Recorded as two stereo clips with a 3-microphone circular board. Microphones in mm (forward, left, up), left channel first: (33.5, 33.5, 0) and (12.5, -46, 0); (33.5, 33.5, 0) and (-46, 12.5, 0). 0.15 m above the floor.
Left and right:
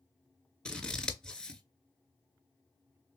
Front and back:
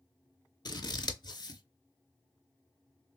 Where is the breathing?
No breathing in this recording.